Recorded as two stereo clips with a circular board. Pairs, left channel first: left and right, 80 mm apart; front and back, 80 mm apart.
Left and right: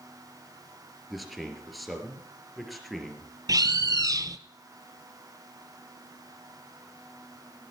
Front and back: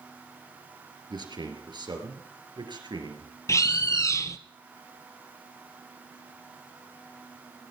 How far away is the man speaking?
About 3.5 m.